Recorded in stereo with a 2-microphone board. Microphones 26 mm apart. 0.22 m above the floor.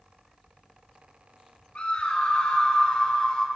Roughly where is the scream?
Left.